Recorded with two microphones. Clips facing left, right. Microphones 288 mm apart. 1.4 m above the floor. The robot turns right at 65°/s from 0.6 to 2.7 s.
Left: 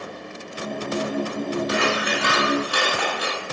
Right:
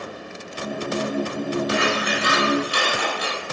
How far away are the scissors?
About 3.5 m.